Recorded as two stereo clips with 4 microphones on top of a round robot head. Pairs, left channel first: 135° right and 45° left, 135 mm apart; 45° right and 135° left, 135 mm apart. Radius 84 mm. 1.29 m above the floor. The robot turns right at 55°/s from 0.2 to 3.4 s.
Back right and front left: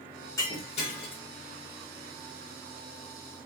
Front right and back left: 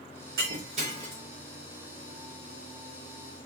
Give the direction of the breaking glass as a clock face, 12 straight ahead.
7 o'clock.